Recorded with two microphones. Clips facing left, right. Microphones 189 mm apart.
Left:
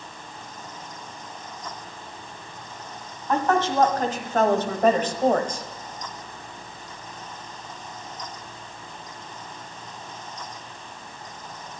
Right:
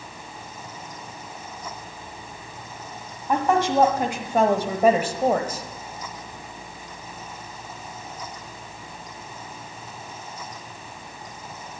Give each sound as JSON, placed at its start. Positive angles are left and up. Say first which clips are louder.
{"t": 3.3, "sound": "a woman speaking", "louder": "right 1 dB", "side_deg": -15, "distance_m": 1.4}